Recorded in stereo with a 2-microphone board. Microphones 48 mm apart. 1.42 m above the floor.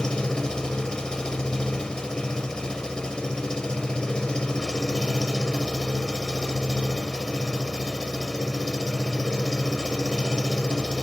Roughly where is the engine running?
Centre.